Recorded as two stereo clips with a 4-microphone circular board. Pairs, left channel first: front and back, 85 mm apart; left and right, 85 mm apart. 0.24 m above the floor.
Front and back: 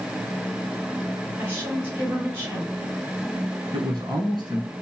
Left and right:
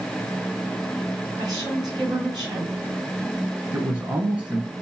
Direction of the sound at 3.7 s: 155° right.